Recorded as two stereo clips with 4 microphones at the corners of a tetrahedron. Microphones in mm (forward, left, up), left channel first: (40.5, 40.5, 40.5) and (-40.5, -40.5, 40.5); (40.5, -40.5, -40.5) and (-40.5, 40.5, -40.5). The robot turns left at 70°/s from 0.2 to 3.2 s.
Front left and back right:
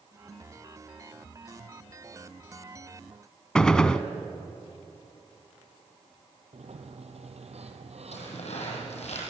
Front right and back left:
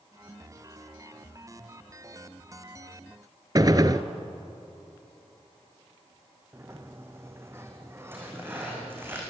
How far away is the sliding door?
About 2.5 m.